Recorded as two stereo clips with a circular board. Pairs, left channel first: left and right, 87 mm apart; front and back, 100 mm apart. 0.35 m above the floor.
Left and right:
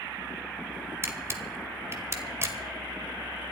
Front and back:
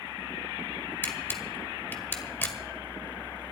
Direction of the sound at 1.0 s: 60° right.